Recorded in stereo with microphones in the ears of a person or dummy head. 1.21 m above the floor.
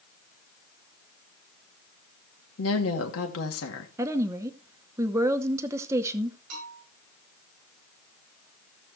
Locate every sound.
2.6 s a woman speaking: 80° left, 2 m
4.0 s a woman speaking: 15° right (ahead or behind), 0.7 m
6.5 s a bell: 50° right (ahead or behind), 8.5 m